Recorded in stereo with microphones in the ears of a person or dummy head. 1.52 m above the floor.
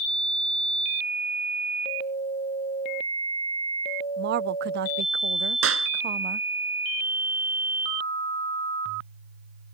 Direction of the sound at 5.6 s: 85° right.